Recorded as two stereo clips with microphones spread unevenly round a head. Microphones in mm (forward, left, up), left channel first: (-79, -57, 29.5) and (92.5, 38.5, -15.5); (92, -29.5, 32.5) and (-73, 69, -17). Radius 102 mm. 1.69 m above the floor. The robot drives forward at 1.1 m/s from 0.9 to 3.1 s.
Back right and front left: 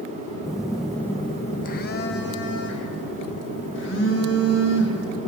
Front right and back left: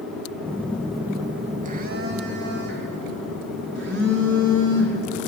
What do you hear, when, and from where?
0.4 s a phone buzzing: 80° right, 0.8 m; by 5.2 s 170° right, 2.5 m